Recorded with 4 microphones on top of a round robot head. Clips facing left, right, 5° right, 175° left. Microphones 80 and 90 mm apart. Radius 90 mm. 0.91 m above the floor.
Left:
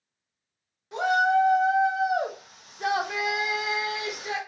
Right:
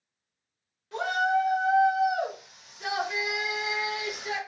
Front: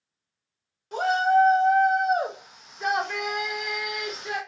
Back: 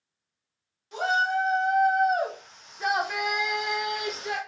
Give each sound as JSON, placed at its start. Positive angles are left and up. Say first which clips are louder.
{"t": 0.9, "sound": "a shout", "louder": "left 4 dB, front 5 dB", "azimuth_deg": 20, "distance_m": 1.2}